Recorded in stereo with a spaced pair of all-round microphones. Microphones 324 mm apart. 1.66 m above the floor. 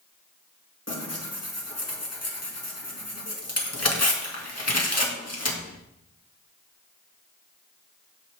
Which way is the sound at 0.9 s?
50° left (ahead or behind).